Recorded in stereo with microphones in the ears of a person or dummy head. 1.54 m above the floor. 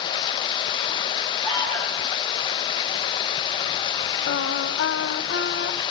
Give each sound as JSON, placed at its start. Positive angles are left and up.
{"t": 0.0, "sound": "running water", "side_deg": 25, "distance_m": 0.8}
{"t": 1.4, "sound": "an alarm", "side_deg": 20, "distance_m": 7.0}
{"t": 4.3, "sound": "singing", "side_deg": 60, "distance_m": 1.4}